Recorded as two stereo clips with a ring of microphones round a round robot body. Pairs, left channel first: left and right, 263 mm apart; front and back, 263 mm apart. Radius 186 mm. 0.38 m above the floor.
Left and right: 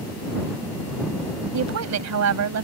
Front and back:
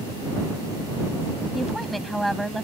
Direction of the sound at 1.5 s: 90° right.